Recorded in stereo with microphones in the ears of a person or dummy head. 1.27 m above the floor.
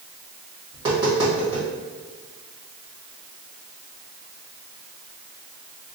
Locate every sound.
0.7 s tapping: 25° right (ahead or behind), 1.3 m